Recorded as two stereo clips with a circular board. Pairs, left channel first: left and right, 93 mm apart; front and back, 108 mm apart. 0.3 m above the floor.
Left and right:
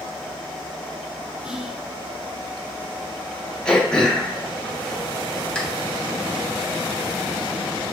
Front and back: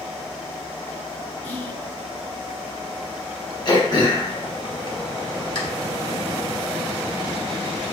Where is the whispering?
20° right, 1.1 m.